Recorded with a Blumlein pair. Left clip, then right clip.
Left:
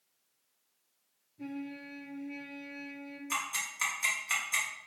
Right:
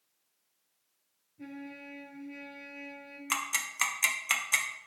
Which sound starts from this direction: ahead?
A trumpet, at 1.4 s.